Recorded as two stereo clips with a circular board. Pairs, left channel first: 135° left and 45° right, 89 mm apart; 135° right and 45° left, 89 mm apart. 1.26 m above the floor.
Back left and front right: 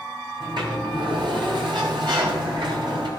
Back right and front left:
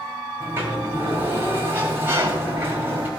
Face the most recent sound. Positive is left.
turn(degrees=-20)